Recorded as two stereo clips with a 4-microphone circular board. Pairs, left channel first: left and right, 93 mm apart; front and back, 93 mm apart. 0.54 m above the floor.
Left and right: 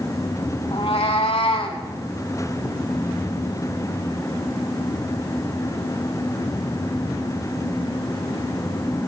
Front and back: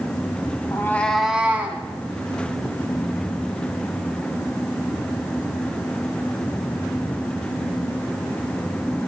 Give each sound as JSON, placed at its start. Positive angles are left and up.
{"t": 0.7, "sound": "a cat meowing", "azimuth_deg": 55, "distance_m": 0.8}